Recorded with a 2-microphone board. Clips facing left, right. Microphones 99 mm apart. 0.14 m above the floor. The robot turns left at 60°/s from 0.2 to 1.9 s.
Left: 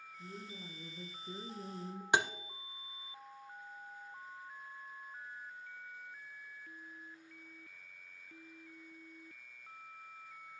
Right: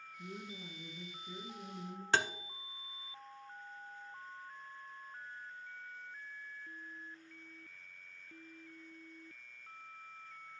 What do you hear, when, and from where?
0.2 s a woman speaking: 160° right, 1.9 m; by 2.0 s 100° left, 1.9 m
2.1 s tapping: 15° left (ahead or behind), 0.6 m